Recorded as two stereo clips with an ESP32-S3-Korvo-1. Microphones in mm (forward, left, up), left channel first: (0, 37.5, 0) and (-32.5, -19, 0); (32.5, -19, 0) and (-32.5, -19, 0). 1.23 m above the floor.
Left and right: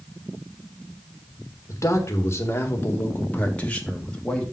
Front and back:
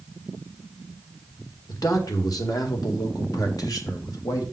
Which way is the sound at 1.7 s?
25° left.